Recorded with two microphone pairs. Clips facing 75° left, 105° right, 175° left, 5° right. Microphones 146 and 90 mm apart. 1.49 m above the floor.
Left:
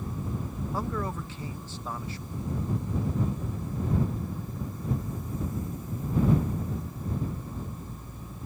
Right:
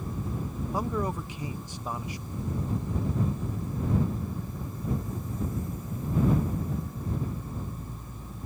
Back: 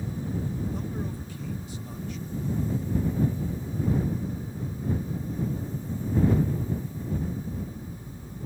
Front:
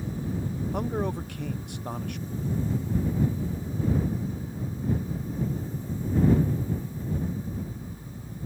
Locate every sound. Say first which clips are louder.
0.7 s a man speaking: right 3 dB, front 5 dB; 25° right